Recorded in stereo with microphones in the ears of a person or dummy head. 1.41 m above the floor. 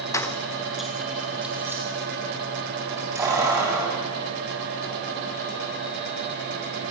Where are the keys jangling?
15° left (ahead or behind), 1.0 m; by 6.7 s 15° right (ahead or behind), 9 m.